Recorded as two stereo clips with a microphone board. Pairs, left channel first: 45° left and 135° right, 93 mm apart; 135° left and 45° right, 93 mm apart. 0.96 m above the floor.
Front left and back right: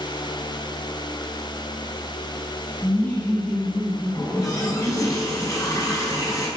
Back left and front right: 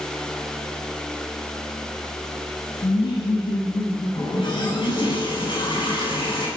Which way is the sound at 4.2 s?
100° left.